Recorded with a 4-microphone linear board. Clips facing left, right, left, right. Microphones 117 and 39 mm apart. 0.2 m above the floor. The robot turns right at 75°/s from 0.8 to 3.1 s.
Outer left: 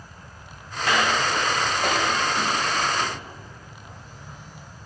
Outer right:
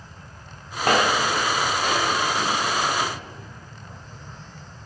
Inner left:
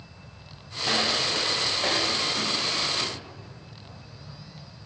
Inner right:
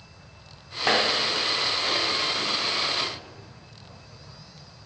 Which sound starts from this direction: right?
Footsteps, at 0.8 s.